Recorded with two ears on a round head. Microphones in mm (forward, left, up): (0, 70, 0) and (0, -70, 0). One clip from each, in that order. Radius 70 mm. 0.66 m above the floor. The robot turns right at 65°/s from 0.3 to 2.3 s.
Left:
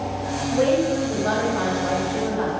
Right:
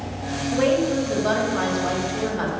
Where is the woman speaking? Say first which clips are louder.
Even; 175° right, 4 m; by 2.5 s 60° right, 4 m.